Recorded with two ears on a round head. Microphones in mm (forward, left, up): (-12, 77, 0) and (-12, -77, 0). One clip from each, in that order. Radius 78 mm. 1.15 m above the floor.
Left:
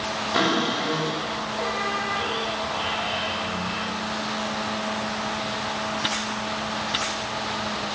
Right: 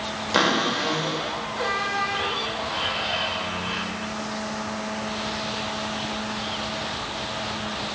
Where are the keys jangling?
No keys jangling in this recording.